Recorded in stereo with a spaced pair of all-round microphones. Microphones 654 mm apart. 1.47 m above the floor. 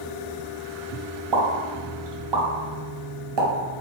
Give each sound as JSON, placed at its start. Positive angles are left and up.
{"t": 1.3, "sound": "a pop", "side_deg": -45, "distance_m": 0.6}